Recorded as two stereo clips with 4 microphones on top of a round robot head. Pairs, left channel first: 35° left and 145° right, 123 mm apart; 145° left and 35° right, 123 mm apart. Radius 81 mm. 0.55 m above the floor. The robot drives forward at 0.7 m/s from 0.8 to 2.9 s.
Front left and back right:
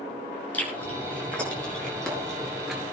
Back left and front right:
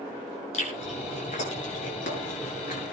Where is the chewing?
115° left, 5.5 m; by 2.9 s 125° left, 6.5 m.